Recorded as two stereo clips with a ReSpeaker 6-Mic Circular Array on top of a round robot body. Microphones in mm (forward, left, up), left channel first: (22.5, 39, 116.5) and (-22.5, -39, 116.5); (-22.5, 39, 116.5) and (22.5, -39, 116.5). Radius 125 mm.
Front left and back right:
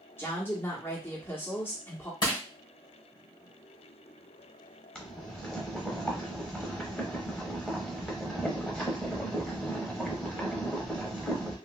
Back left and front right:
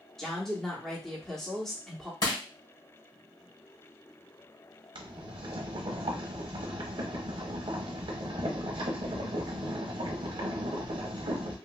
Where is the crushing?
90° left, 2.0 m.